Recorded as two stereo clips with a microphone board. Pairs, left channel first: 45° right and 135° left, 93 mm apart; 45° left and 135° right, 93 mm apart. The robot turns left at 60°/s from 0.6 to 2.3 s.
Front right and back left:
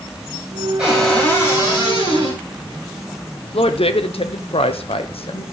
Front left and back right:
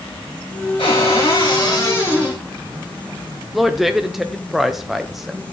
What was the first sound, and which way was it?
A cupboard door, 55° left.